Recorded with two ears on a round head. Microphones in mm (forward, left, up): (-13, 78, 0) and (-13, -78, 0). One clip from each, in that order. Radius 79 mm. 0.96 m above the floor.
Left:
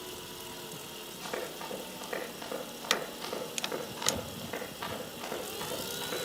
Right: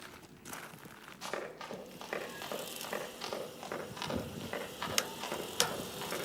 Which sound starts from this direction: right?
Running footsteps, at 1.2 s.